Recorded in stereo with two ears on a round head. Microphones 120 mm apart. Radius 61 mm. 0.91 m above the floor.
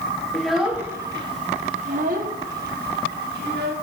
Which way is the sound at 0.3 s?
5° left (ahead or behind).